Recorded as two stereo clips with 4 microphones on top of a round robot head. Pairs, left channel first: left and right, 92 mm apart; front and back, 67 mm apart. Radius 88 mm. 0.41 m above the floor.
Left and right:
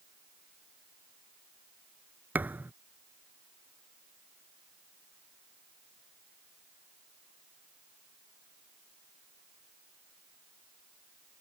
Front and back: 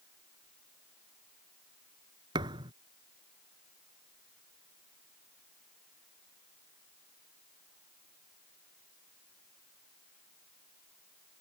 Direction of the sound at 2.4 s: 160° right.